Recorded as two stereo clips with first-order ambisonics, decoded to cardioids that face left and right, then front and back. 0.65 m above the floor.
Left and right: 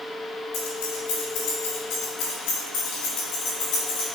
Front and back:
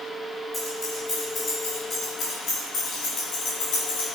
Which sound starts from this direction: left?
Keys jangling, at 0.5 s.